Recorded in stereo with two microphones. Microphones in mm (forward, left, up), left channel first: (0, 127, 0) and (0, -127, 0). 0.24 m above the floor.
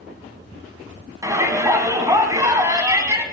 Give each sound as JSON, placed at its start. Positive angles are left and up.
{"t": 1.2, "sound": "a shout", "side_deg": -15, "distance_m": 2.5}